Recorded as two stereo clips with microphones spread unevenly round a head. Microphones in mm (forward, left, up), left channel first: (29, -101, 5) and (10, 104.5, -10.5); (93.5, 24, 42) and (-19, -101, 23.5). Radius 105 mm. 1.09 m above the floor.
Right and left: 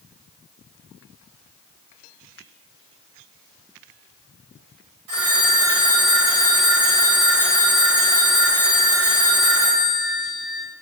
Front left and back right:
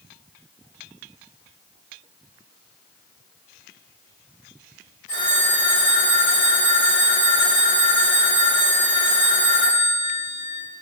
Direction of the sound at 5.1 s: 105° left.